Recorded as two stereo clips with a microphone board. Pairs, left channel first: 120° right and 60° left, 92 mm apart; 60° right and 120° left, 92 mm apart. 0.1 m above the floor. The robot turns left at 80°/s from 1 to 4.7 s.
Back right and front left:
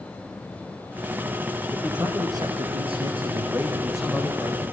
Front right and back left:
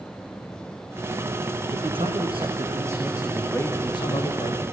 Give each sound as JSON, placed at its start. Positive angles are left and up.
{"t": 1.7, "sound": "a man speaking", "azimuth_deg": 155, "distance_m": 5.0}